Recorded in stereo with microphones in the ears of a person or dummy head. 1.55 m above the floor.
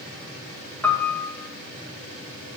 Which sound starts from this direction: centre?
A piano, at 0.8 s.